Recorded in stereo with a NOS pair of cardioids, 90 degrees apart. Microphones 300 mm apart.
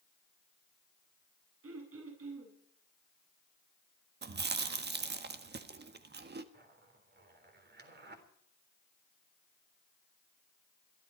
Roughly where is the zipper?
Ahead right.